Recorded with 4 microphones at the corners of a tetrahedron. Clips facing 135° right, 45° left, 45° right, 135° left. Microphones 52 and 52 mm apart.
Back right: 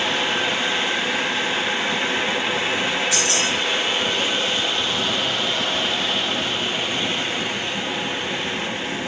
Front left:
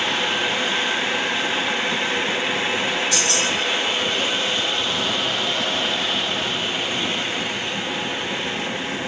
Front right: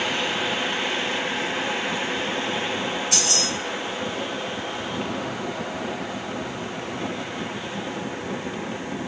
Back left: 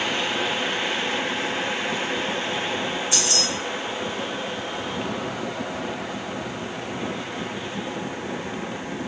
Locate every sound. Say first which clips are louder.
3.1 s keys jangling: even, even; 55° right, 1.3 m